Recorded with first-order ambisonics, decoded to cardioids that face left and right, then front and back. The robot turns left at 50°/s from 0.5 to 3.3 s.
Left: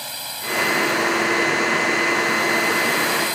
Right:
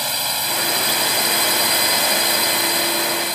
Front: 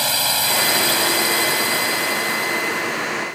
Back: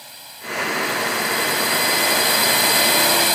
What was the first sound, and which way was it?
A drone, 30° right.